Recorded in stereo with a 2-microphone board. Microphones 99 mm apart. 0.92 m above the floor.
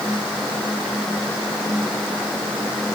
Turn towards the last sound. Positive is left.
No sound to turn to.